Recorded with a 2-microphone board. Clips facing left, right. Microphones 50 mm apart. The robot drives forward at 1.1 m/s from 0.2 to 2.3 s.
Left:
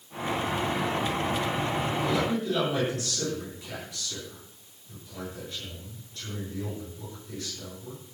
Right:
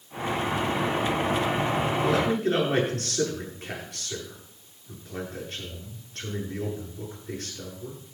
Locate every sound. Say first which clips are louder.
2.0 s a man speaking: right 4 dB; 60° right (ahead or behind), 8 m; by 8.0 s 55° right (ahead or behind), 8 m